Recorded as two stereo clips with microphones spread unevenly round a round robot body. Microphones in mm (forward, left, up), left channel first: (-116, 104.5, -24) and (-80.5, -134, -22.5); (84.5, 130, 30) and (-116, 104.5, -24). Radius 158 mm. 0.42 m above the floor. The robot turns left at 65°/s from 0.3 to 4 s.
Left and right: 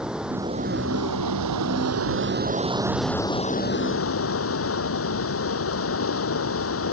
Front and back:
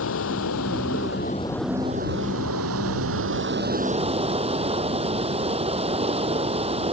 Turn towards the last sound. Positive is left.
turn(degrees=125)